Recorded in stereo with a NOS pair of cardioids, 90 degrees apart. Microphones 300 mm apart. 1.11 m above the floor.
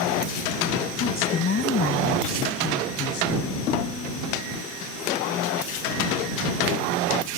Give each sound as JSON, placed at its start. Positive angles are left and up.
{"t": 1.0, "sound": "a woman speaking", "azimuth_deg": 40}